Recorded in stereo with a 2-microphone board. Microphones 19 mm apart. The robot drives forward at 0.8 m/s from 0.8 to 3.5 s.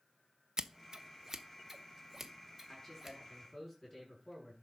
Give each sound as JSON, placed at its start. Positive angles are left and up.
{"t": 0.6, "sound": "scissors", "side_deg": -35, "distance_m": 0.7}
{"t": 2.7, "sound": "a man speaking", "side_deg": 15, "distance_m": 7.0}